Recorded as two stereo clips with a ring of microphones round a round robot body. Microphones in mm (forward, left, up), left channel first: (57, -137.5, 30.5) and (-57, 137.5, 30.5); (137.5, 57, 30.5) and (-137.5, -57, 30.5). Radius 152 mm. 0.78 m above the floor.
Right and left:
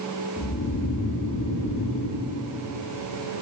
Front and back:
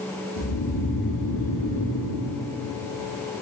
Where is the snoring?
5° right, 9.5 m.